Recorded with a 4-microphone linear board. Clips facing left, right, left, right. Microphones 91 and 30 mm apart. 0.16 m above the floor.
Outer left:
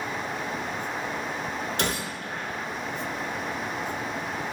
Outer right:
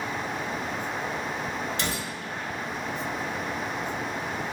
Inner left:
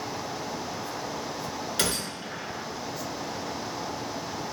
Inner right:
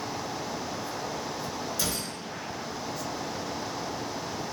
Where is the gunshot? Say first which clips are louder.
Outer left 2 dB, inner left 3 dB; 60° left (ahead or behind), 0.6 m.